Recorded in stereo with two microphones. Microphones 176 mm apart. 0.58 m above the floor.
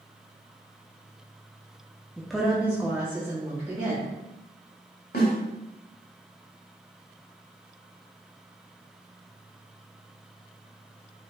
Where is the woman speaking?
5° left (ahead or behind), 0.6 m; by 4.1 s 20° right (ahead or behind), 1.6 m.